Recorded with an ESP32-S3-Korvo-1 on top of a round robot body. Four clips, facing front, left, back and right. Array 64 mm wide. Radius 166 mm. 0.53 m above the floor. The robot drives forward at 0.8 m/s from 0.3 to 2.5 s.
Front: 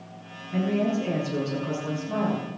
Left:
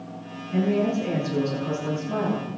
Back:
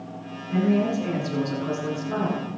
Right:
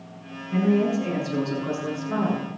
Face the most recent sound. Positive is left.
turn(degrees=-150)